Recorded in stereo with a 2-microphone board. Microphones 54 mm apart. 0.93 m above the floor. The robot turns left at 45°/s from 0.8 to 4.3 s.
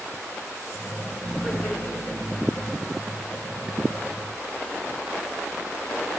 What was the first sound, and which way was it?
Laughter, 160° left.